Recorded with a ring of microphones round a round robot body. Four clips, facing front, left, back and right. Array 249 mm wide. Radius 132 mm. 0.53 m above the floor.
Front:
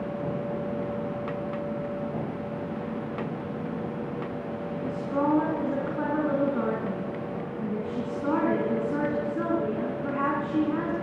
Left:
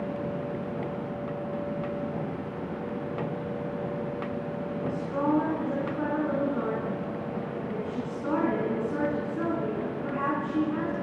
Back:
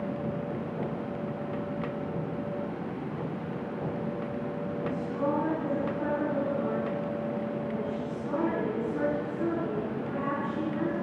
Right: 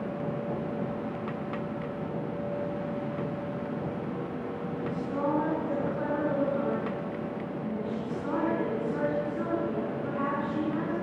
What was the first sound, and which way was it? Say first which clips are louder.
A woman speaking: left 2 dB, front 4 dB; 10° left.